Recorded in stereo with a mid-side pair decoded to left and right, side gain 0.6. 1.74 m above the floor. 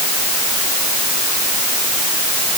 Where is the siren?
No siren in this recording.